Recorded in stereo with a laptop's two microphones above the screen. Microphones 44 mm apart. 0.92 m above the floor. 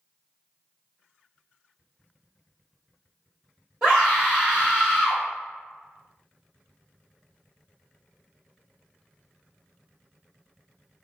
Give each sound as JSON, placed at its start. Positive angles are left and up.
{"t": 3.8, "sound": "a scream", "side_deg": -20, "distance_m": 1.7}